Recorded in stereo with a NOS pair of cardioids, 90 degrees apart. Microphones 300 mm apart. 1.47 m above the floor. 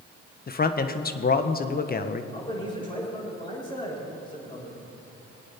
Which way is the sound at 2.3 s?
15° left.